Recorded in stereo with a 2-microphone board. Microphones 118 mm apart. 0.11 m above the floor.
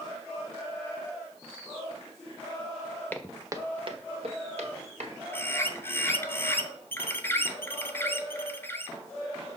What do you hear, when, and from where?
3.1 s footsteps: 15° left (ahead or behind), 0.6 m; by 5.2 s 70° right (ahead or behind), 2.5 m
5.3 s a bird: 20° left (ahead or behind), 0.6 m